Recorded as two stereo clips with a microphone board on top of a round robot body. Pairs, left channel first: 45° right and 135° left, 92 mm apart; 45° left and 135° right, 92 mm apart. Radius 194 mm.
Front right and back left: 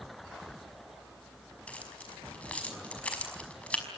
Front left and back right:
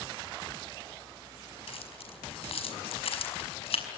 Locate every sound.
1.7 s keys jangling: 30° left, 5 m